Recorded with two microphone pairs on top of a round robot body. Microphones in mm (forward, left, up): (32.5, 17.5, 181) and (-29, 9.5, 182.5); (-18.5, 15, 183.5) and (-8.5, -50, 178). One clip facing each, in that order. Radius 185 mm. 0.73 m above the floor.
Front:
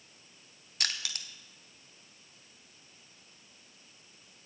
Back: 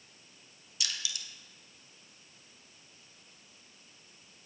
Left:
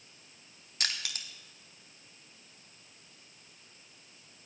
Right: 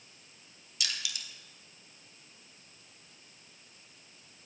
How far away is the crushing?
About 0.7 m.